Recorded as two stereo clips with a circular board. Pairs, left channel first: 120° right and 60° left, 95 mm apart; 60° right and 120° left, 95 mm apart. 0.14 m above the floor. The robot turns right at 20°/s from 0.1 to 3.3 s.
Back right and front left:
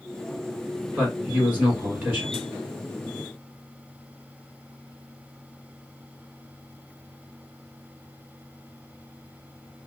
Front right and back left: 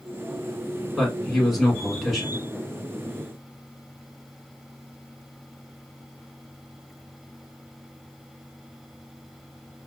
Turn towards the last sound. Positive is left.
turn(degrees=65)